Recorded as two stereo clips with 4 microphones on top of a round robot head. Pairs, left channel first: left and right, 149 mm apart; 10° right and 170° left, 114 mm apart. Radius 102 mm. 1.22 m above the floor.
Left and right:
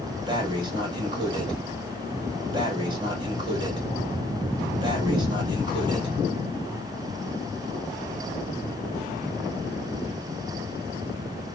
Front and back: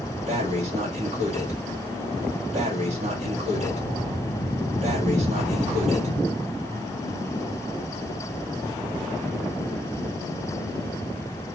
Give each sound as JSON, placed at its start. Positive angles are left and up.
{"t": 0.3, "sound": "breathing", "azimuth_deg": -150, "distance_m": 2.5}